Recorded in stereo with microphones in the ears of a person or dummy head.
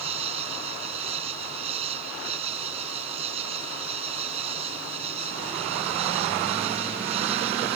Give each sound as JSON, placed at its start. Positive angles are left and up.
{"t": 0.0, "sound": "an insect", "side_deg": -30}